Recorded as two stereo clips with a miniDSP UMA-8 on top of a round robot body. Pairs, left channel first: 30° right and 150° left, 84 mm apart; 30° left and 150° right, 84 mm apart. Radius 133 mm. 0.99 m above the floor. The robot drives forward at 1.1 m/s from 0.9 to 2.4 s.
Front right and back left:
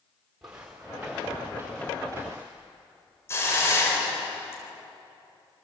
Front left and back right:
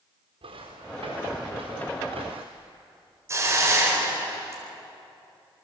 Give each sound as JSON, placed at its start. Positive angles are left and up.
{"t": 0.4, "sound": "footsteps", "azimuth_deg": -125, "distance_m": 5.5}
{"t": 3.3, "sound": "a hiss", "azimuth_deg": -90, "distance_m": 4.5}